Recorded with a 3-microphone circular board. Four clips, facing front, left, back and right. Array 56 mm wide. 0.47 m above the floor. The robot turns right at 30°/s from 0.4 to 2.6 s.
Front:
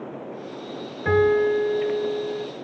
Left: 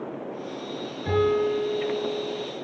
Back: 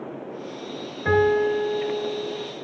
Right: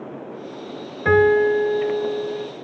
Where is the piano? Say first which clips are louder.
Right 8 dB, front 1 dB; 90° right, 3.5 m; by 2.5 s 50° right, 3.5 m.